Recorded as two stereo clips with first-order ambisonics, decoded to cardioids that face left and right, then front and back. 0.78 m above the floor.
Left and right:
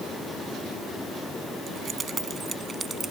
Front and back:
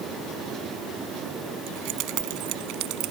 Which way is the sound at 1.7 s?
150° right.